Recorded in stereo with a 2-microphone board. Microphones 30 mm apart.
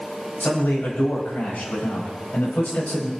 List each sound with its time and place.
0.4 s a man speaking: 85° left, 7.5 m; by 3.1 s 90° left, 6 m